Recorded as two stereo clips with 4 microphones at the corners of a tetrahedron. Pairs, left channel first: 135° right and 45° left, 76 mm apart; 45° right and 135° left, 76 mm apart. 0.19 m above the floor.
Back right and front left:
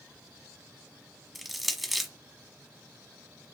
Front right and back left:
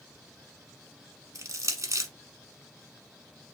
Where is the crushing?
135° left, 0.9 m.